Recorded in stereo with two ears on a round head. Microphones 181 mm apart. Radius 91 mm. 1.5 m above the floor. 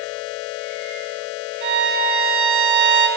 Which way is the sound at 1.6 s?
55° right (ahead or behind).